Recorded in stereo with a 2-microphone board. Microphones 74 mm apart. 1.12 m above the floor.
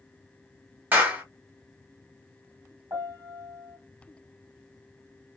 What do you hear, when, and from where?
0.9 s a clap: 25° right (ahead or behind), 1.4 m
2.9 s a piano: 55° right (ahead or behind), 1.7 m